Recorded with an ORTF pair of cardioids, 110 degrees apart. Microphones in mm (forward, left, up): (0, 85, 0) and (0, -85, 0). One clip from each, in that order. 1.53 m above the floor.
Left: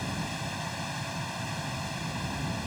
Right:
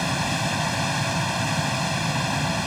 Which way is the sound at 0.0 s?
60° right.